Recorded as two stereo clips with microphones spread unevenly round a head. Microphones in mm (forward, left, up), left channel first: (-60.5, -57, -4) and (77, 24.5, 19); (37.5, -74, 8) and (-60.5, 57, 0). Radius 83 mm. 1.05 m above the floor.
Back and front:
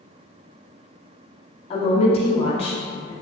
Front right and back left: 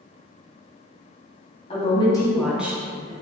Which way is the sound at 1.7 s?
105° right.